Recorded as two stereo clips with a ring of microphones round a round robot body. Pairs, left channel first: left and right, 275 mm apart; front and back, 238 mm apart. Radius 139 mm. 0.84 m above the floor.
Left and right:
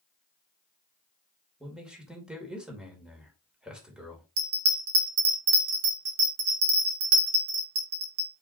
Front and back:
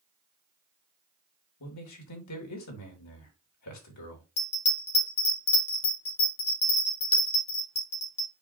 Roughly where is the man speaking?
Ahead.